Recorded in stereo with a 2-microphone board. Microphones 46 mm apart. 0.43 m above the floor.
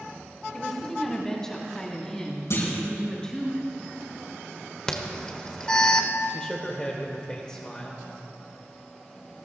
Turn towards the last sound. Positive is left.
turn(degrees=20)  # may be behind; listen again after turning